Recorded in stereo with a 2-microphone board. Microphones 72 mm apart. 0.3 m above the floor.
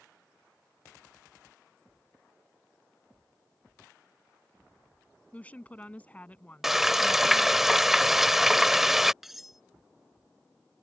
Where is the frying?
5° right (ahead or behind).